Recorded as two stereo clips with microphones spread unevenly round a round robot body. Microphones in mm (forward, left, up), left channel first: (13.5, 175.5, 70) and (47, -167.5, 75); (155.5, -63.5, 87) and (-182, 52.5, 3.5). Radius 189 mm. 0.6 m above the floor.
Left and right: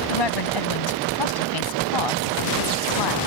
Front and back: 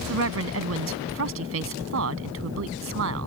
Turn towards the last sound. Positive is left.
turn(degrees=110)